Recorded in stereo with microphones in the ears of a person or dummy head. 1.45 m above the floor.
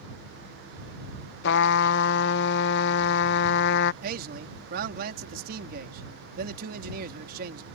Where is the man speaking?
60° right (ahead or behind).